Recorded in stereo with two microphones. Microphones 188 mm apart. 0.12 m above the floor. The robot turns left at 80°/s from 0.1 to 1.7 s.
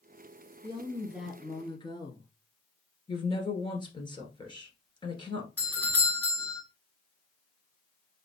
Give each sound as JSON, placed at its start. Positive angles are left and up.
{"t": 0.6, "sound": "a woman speaking", "azimuth_deg": -130, "distance_m": 1.4}
{"t": 3.1, "sound": "a woman speaking", "side_deg": 25, "distance_m": 1.7}
{"t": 5.6, "sound": "a doorbell", "side_deg": 10, "distance_m": 1.9}